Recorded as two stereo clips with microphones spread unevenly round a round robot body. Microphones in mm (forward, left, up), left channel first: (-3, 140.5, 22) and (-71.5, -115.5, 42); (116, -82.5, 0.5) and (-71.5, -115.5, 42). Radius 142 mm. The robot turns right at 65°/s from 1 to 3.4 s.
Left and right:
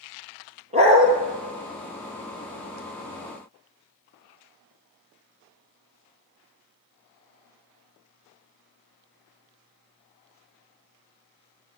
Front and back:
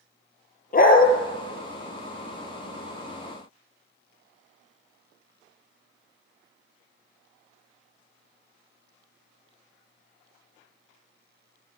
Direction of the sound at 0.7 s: 35° right.